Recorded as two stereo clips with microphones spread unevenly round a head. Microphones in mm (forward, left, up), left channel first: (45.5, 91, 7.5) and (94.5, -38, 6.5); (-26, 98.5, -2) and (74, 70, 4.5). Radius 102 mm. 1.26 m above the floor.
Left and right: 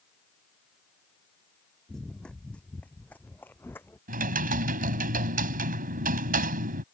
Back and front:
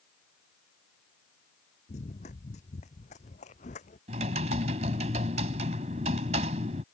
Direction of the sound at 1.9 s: 160° right.